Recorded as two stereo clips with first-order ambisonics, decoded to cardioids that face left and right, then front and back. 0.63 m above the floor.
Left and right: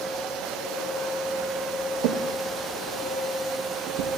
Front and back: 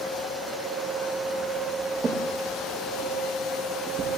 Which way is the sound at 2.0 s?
110° right.